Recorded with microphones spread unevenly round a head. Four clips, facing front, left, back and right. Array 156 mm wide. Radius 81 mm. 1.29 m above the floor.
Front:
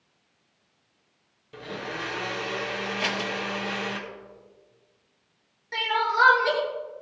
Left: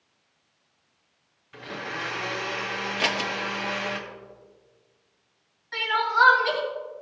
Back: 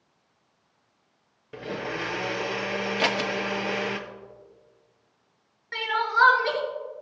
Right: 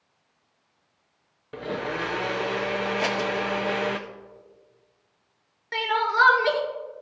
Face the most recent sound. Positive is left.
turn(degrees=-90)